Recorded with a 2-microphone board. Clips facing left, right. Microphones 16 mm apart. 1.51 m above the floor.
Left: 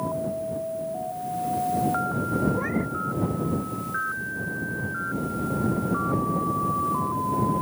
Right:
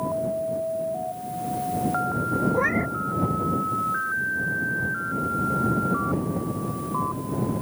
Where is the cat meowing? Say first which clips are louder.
Right 4 dB; 35° right (ahead or behind).